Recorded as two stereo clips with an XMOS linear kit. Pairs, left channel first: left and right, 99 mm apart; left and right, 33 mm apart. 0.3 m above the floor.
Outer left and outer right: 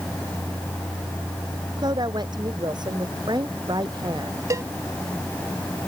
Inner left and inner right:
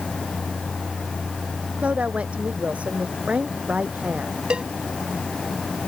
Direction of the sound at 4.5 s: 35° right (ahead or behind).